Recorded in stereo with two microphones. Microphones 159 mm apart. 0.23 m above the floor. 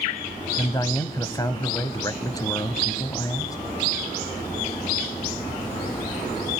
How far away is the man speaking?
About 1.0 m.